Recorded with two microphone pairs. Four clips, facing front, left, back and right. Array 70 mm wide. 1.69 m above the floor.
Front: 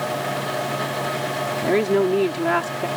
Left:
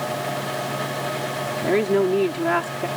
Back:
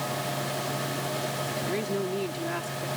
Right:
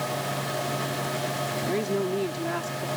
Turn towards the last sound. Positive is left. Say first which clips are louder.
# left 10 dB, front 14 dB
turn(degrees=40)